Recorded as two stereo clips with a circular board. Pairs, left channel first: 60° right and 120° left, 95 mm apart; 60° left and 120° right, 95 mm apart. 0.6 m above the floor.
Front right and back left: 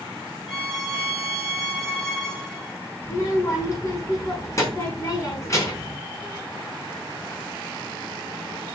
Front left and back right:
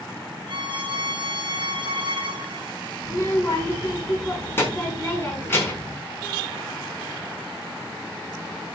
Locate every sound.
0.5 s a violin: 145° right, 2.5 m
3.0 s a child speaking: 5° right, 5 m